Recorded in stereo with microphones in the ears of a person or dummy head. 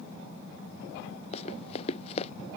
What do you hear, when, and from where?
1.3 s running footsteps: 35° left (ahead or behind)